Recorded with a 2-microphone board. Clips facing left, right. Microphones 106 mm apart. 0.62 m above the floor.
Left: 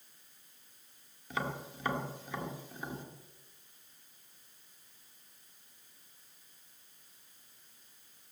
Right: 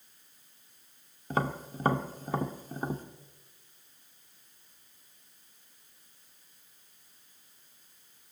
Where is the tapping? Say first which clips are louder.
Right 6 dB; 40° right (ahead or behind), 1.3 m.